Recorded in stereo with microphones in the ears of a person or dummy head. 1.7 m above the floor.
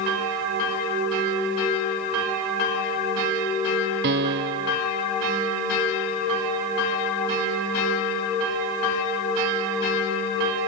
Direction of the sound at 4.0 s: 55° right (ahead or behind).